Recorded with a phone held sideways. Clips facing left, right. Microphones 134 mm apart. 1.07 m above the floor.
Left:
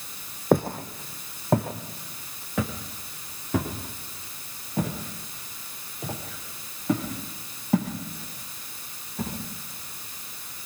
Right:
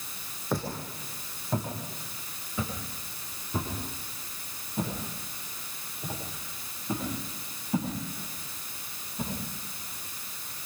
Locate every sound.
0.5 s footsteps: 55° left (ahead or behind), 1.8 m; by 9.3 s 75° left (ahead or behind), 10.5 m